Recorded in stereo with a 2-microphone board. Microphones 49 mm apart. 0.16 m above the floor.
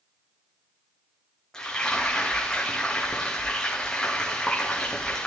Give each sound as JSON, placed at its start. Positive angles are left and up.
{"t": 1.5, "sound": "frying", "side_deg": 15, "distance_m": 4.5}